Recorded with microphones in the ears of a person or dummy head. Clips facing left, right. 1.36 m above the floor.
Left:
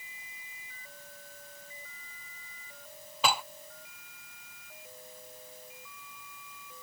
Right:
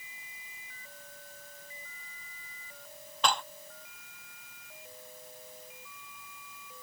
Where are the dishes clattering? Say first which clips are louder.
Even; 5° left (ahead or behind).